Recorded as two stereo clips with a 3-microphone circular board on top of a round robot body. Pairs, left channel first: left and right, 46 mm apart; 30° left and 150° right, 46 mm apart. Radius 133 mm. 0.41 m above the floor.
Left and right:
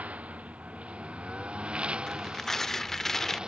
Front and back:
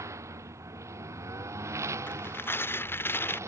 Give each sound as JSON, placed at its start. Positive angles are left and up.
{"t": 0.0, "sound": "a lawn mower", "azimuth_deg": -150}
{"t": 2.1, "sound": "tearing paper", "azimuth_deg": 10}